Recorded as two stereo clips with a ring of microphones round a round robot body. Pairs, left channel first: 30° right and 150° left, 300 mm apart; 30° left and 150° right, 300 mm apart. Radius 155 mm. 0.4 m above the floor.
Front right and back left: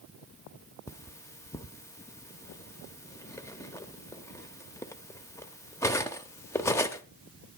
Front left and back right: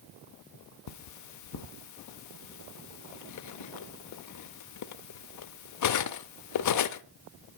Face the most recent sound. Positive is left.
turn(degrees=50)